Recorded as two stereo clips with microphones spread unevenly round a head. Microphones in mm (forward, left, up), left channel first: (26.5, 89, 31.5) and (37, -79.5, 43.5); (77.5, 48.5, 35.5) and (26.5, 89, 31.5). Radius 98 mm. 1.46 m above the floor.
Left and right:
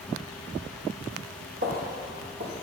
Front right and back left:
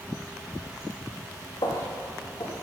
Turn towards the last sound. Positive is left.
turn(degrees=-85)